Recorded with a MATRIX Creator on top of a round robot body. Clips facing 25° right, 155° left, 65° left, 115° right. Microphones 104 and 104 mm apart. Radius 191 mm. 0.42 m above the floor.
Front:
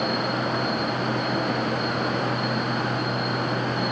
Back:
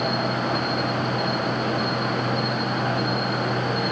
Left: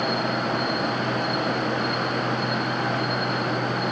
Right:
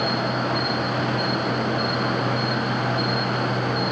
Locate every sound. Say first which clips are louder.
0.0 s an insect: back 1 dB, right 1 dB; 170° left, 2.5 m